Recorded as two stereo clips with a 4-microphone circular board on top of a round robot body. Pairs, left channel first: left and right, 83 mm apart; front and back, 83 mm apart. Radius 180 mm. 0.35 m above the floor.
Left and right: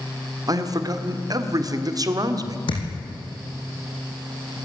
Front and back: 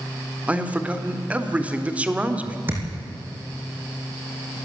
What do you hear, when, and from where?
0.5 s a man speaking: 110° right, 1.9 m
2.7 s a thud: 115° left, 4.5 m